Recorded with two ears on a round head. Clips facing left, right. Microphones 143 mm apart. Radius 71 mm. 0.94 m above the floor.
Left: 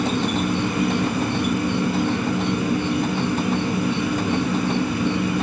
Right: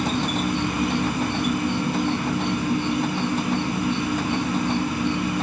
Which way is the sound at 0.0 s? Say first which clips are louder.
Left 2 dB; 70° left (ahead or behind).